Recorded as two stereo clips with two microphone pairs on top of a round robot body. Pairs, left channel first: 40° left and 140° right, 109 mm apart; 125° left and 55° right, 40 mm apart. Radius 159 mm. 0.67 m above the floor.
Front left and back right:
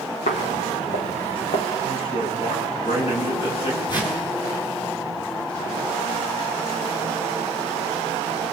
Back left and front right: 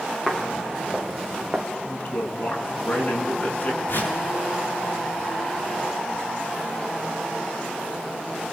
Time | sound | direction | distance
0.3 | footsteps | 45° left | 3 m
1.8 | a man speaking | 70° left | 9 m
3.9 | a whoosh | 90° left | 8 m